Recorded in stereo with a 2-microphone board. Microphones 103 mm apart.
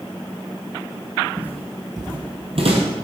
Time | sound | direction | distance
1.4 | footsteps | 10° right (ahead or behind) | 1.1 m